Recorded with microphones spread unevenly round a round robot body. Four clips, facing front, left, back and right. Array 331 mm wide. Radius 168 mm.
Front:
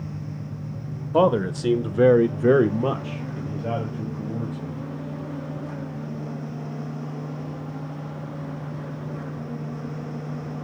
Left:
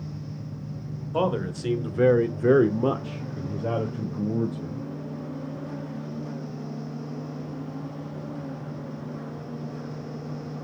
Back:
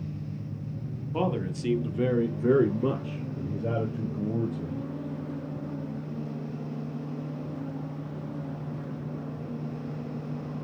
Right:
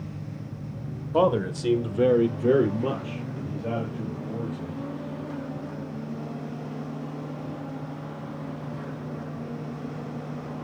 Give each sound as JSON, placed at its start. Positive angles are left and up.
{"t": 1.1, "sound": "a man speaking", "azimuth_deg": -15, "distance_m": 1.8}